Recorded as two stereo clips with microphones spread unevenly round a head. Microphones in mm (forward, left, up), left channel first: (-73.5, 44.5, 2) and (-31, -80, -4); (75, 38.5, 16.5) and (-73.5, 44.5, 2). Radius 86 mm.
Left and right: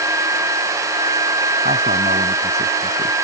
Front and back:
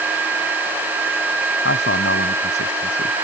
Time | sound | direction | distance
1.6 | a man speaking | 20° right | ?